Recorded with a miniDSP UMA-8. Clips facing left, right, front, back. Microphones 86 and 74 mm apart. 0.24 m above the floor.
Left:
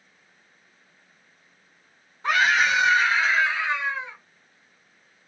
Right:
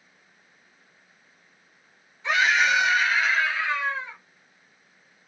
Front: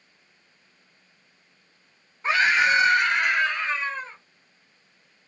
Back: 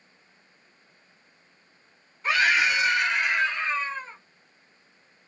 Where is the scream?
55° left, 2.0 m; by 4.2 s 10° left, 3 m.